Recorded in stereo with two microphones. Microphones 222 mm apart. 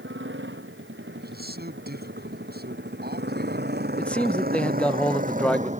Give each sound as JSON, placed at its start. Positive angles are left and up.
{"t": 0.0, "sound": "a motorcycle", "side_deg": -65}
{"t": 1.2, "sound": "a man speaking", "side_deg": -50}
{"t": 4.0, "sound": "a man speaking", "side_deg": 5}